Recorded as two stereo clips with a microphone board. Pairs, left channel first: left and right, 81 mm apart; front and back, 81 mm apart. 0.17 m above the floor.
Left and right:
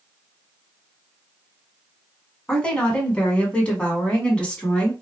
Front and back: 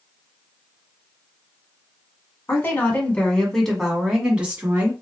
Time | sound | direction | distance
2.5 | a woman speaking | 25° left | 1.5 m